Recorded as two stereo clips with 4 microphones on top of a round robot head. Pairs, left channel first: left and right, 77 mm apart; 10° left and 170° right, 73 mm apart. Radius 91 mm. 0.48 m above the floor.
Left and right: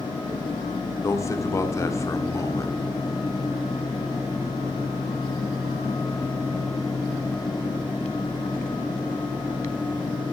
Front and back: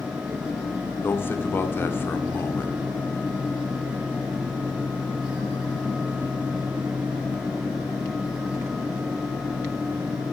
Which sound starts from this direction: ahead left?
A man speaking, at 1.0 s.